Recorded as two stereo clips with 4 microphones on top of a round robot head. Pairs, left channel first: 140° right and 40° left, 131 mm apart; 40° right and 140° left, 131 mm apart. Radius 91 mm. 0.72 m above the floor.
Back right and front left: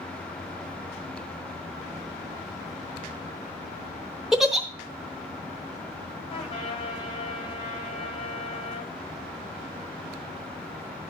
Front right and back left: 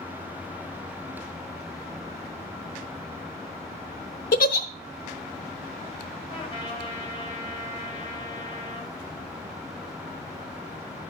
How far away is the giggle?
About 0.8 m.